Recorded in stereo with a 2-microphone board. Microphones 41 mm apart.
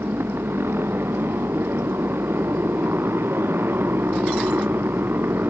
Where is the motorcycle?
70° right (ahead or behind); by 5.5 s 60° right (ahead or behind).